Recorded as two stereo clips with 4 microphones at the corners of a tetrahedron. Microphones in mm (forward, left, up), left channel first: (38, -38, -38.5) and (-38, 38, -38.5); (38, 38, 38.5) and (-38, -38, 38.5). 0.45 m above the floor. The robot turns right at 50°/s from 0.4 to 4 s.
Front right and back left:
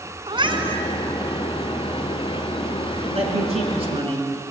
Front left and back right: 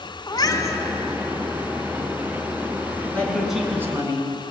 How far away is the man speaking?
About 4.5 m.